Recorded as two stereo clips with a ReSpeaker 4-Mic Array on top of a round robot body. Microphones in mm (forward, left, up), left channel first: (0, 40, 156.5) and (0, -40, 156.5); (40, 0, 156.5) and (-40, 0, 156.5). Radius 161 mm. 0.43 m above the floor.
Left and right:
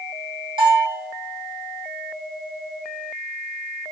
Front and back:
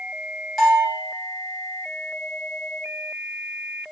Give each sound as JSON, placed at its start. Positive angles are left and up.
{"t": 0.6, "sound": "a bell", "azimuth_deg": -90, "distance_m": 4.0}